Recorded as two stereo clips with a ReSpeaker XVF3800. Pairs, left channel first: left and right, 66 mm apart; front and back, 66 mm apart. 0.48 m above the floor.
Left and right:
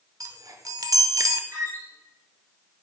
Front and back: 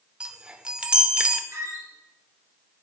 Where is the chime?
105° right, 0.5 m.